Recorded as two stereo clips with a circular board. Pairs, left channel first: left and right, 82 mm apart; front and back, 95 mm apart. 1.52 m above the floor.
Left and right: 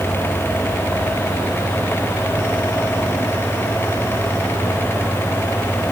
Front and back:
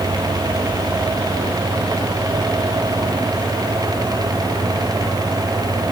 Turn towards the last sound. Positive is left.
No sound to turn to.